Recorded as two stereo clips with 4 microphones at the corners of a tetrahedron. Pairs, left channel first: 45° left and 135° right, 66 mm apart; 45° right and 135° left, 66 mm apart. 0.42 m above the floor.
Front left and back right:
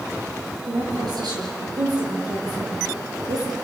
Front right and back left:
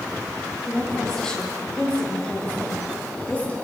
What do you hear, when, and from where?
0.7 s a woman speaking: 130° right, 7 m; by 3.5 s 115° right, 8 m